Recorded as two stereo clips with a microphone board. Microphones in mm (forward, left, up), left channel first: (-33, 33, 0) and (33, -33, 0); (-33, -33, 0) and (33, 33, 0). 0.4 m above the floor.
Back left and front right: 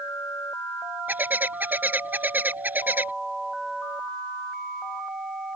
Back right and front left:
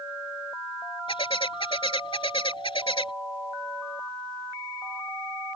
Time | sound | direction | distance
1.1 | a bird | 115° right | ?